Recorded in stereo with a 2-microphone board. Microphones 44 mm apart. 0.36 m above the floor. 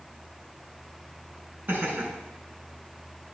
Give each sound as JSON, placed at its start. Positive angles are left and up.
{"t": 1.7, "sound": "laughter", "side_deg": -40, "distance_m": 3.5}